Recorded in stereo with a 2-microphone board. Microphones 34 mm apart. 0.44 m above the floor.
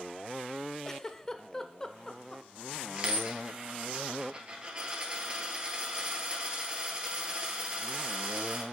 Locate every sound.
0.8 s a giggle: 20° left (ahead or behind), 0.5 m
3.0 s a dropped coin: 35° right (ahead or behind), 1.9 m